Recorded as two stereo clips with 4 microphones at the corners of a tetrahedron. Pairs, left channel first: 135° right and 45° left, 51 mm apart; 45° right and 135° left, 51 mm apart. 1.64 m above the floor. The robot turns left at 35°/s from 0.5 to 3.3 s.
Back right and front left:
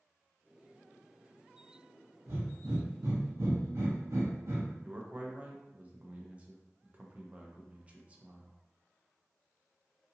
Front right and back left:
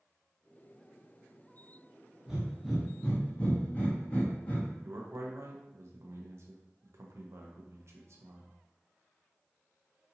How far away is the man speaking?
About 0.6 m.